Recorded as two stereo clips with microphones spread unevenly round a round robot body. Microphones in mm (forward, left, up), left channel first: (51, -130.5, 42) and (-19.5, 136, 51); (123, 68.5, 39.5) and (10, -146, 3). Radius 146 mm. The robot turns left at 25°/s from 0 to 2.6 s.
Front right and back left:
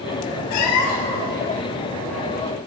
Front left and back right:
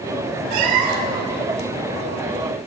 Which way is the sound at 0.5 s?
105° right.